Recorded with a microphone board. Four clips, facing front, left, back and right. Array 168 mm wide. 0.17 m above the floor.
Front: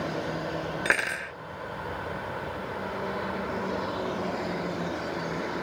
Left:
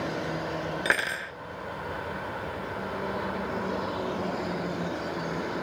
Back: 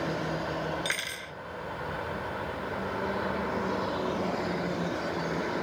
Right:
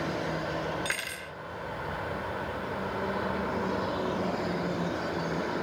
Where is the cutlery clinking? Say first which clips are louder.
Left 8 dB, front 8 dB; 40° left.